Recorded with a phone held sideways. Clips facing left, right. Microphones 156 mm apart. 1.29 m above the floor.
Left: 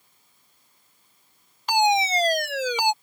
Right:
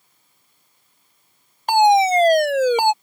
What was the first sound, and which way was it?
A fire alarm, 50° right (ahead or behind).